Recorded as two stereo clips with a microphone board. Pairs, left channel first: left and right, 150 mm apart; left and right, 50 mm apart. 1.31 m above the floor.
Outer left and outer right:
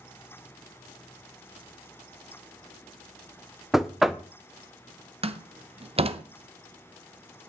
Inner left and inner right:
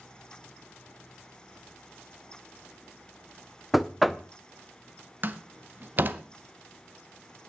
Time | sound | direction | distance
3.7 | knocking | centre (ahead or behind) | 0.6 m
5.2 | a door slam | 40° right (ahead or behind) | 0.7 m